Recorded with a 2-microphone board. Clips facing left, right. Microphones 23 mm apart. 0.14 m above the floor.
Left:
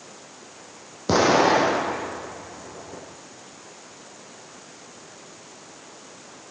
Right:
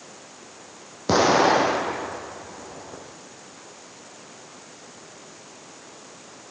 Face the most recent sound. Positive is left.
turn(degrees=-10)  # may be behind; listen again after turning